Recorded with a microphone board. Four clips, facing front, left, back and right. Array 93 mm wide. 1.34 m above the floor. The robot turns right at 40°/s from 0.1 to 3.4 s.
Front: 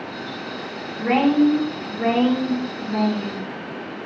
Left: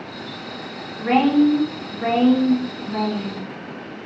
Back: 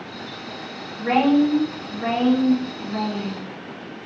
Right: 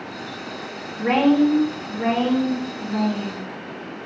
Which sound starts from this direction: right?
A woman speaking, at 1.0 s.